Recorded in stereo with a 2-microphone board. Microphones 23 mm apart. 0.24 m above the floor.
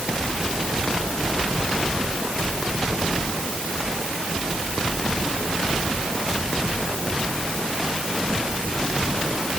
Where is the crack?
I don't hear a crack.